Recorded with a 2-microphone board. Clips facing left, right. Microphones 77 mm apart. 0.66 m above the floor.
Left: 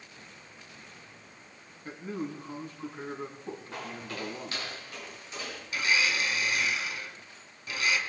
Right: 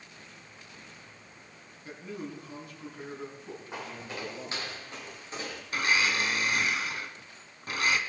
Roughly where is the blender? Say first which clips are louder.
Right 1 dB; right.